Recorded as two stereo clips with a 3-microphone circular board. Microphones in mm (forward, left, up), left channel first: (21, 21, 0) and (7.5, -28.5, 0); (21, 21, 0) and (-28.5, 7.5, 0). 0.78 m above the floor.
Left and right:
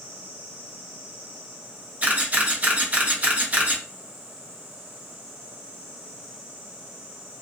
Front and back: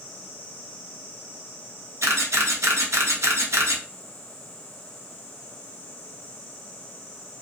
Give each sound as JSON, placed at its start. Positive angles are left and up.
{"t": 2.0, "sound": "a camera shutter", "azimuth_deg": -160, "distance_m": 0.6}